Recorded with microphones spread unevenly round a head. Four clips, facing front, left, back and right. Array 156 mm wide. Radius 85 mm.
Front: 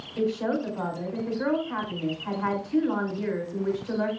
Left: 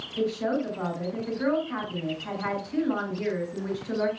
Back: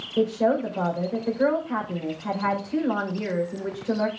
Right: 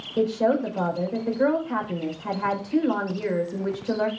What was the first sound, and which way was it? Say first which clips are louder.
A woman speaking: right 5 dB, back 5 dB; 135° right.